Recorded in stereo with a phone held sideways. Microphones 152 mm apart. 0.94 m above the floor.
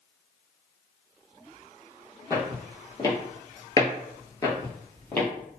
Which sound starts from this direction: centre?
Footsteps, at 2.3 s.